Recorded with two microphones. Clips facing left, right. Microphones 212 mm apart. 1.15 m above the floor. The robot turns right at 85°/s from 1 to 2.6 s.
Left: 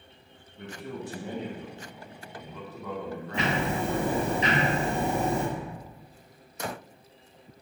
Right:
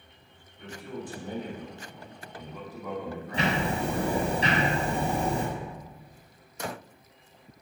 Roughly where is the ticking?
Right.